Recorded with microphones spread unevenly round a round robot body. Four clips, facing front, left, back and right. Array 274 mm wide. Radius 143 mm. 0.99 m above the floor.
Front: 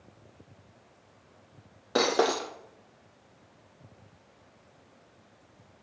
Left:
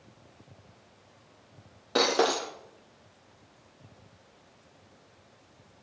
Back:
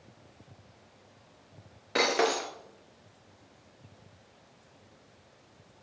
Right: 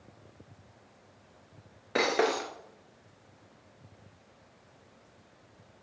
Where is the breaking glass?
35° left, 1.1 m.